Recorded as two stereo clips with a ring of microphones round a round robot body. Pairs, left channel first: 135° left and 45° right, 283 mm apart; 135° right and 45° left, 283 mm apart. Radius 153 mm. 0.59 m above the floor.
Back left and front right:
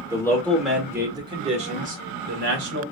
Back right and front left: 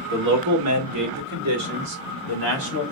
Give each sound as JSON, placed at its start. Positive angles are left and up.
{"t": 0.1, "sound": "a man speaking", "azimuth_deg": 60, "distance_m": 1.7}